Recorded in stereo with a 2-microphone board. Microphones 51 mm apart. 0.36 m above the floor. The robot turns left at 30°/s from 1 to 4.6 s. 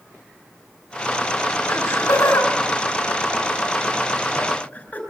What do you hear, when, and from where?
1.7 s laughter: 60° left (ahead or behind), 5.5 m; by 5.0 s 30° left (ahead or behind), 5.5 m